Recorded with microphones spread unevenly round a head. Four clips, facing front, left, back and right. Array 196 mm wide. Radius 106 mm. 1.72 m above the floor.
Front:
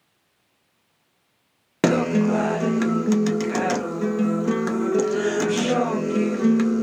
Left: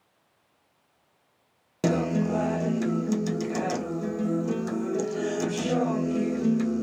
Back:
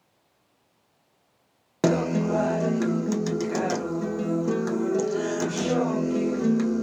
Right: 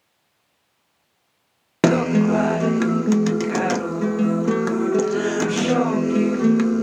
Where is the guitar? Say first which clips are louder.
Right 8 dB, front 4 dB; 65° right, 0.8 m.